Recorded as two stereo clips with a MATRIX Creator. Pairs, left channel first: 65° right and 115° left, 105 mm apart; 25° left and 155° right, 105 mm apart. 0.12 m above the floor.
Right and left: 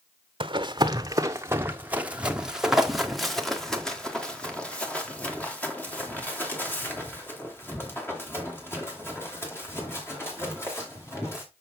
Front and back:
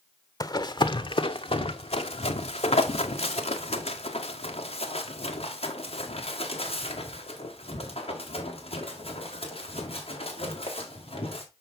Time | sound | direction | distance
0.4 | running footsteps | 75° left | 1.1 m